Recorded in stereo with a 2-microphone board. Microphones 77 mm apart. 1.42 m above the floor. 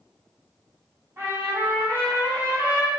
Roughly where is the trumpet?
Right.